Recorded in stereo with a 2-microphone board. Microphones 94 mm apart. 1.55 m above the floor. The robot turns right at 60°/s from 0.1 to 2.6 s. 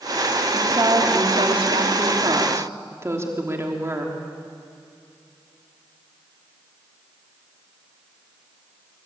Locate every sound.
0.5 s a woman speaking: 155° right, 3 m; by 4.2 s 30° right, 3 m